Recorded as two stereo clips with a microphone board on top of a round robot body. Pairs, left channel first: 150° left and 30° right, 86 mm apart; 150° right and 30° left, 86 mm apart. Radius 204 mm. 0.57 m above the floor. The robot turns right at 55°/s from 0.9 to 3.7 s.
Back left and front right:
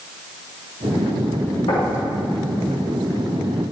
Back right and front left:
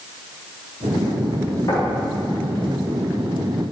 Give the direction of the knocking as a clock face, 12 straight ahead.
7 o'clock.